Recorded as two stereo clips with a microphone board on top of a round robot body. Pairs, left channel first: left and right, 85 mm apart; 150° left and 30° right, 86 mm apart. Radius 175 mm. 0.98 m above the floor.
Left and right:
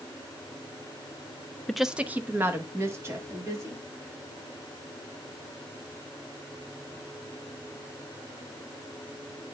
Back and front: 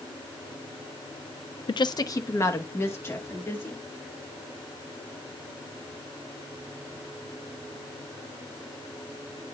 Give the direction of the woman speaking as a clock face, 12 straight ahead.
6 o'clock.